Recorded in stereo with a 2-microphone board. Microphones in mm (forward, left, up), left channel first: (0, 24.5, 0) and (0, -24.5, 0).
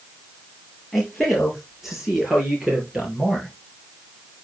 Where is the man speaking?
5° right (ahead or behind), 5 m; by 3.5 s 20° right (ahead or behind), 4.5 m.